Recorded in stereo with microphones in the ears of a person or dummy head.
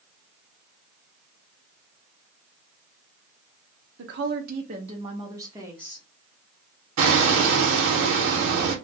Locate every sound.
4.0 s a woman speaking: 55° right (ahead or behind), 0.6 m; by 6.0 s 5° right (ahead or behind), 1.0 m
7.0 s hammering: 75° right (ahead or behind), 0.8 m